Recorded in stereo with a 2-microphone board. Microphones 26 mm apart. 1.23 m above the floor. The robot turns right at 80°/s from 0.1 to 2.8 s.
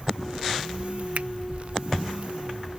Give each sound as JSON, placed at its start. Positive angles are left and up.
{"t": 1.1, "sound": "a finger snap", "side_deg": -75}